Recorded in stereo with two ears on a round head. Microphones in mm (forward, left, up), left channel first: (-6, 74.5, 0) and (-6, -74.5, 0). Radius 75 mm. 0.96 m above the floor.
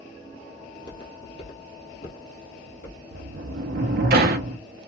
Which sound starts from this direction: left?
Footsteps, at 0.7 s.